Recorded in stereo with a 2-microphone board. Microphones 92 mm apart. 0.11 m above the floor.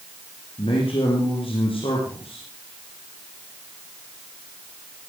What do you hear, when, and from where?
0.6 s a man speaking: 75° left (ahead or behind), 5 m